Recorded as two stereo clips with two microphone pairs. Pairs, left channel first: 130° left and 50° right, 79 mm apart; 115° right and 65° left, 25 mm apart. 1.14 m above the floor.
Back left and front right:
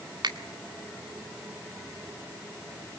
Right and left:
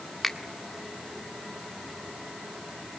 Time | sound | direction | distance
0.2 | a finger snap | 30° right | 1.8 m